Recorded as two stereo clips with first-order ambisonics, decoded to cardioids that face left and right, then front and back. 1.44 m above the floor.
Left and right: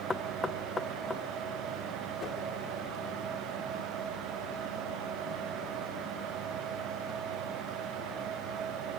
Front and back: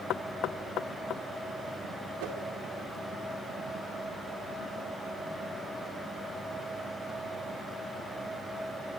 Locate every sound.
0.1 s knocking: 15° left, 0.6 m
2.2 s a whoosh: 160° left, 2.5 m